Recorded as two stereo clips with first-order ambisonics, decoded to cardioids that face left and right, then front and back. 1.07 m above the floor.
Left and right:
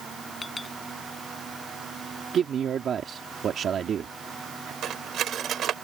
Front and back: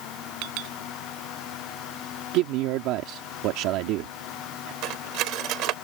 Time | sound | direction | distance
0.4 | a clink | 170° left | ?
2.3 | a man speaking | 150° right | ?
4.8 | cutlery clinking | 145° right | ?